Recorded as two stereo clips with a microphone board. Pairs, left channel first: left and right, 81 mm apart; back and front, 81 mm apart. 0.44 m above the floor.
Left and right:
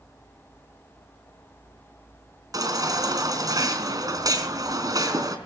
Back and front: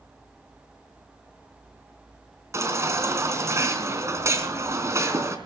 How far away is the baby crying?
About 3.5 m.